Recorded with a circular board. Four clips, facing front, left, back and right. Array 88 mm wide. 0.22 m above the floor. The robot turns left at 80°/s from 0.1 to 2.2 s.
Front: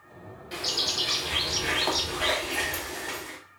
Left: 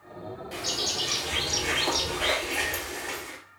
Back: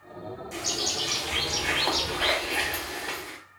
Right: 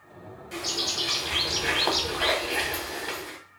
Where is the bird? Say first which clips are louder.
Right 2 dB, front 1 dB; 5° left, 0.7 m; by 3.4 s 130° right, 0.7 m.